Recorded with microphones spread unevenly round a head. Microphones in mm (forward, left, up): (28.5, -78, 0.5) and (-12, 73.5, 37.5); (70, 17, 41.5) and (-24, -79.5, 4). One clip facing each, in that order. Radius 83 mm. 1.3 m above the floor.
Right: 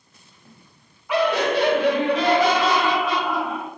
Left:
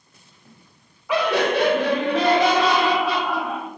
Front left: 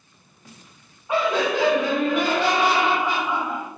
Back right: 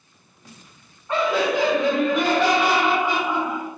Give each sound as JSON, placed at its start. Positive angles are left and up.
{"t": 1.1, "sound": "laughter", "azimuth_deg": 125, "distance_m": 0.7}